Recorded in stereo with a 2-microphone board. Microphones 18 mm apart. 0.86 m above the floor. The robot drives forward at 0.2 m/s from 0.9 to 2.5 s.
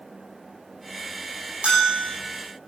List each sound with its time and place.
1.6 s a bell: 80° right, 9 m